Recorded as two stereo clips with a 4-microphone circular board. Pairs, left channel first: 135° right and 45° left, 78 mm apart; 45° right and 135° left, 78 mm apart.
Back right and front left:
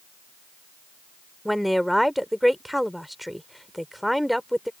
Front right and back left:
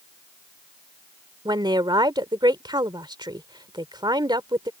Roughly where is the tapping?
No tapping in this recording.